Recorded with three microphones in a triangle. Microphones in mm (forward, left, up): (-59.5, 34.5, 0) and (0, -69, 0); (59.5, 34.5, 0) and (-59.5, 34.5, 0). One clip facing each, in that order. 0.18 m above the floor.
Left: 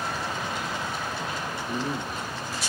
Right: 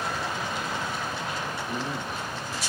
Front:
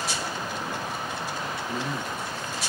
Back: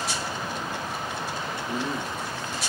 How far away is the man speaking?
About 1.3 m.